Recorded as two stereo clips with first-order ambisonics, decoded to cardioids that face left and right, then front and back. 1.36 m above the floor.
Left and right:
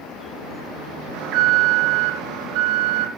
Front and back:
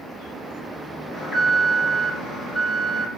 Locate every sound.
1.1 s an alarm: 80° right, 4.5 m